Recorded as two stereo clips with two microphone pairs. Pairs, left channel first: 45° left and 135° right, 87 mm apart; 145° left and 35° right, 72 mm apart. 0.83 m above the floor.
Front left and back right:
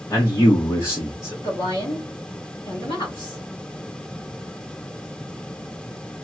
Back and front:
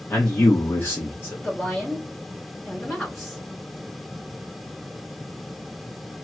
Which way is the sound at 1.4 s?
55° left.